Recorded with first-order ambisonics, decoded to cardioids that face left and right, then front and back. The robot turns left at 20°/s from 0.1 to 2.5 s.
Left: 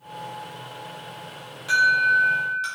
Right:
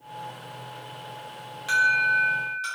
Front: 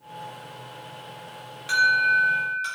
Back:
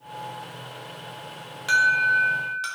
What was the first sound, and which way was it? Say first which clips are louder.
An alarm: left 3 dB, even; 170° right.